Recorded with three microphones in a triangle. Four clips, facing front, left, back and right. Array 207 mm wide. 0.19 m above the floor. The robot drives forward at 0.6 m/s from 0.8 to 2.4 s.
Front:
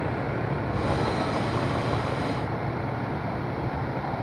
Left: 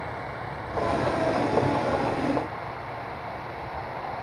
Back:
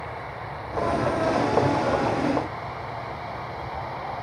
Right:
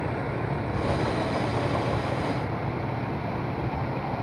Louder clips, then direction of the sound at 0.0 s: Right 4 dB, front 5 dB; 35° right.